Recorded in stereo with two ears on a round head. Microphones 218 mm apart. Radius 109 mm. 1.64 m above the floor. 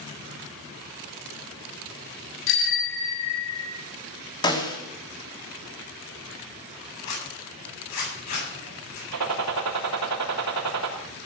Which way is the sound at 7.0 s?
85° left.